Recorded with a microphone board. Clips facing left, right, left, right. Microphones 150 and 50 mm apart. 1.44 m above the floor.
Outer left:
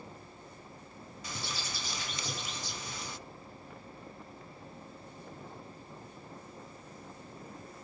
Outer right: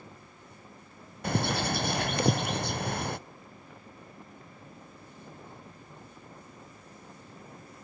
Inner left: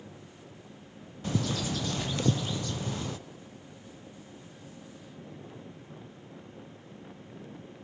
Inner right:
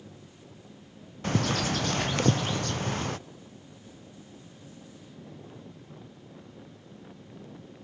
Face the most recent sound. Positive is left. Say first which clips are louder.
# outer right 14 dB, inner right 4 dB
turn(degrees=-60)  # may be behind; listen again after turning